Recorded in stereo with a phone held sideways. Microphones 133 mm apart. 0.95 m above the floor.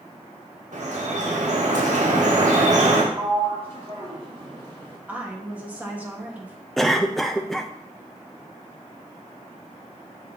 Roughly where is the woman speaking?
Centre.